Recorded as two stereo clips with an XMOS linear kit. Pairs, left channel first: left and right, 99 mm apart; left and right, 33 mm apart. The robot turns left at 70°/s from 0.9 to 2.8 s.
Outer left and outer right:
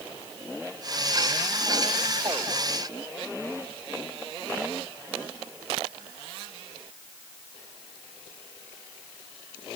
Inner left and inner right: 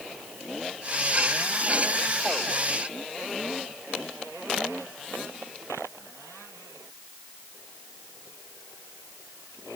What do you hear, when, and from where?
Only background noise.